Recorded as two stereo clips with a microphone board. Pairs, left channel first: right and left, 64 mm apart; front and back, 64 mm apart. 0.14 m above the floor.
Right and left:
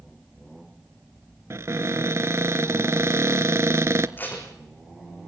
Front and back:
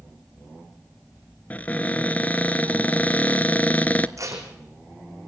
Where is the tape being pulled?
150° right, 3.5 m.